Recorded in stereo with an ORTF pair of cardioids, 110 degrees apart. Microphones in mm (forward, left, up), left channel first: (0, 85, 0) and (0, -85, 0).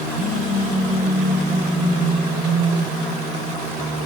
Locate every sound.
0.1 s a phone buzzing: 65° right, 10 m